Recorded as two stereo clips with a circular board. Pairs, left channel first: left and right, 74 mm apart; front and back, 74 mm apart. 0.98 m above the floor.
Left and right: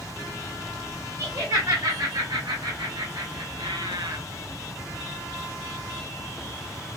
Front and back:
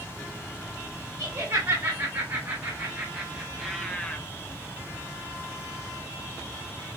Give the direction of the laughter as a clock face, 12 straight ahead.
5 o'clock.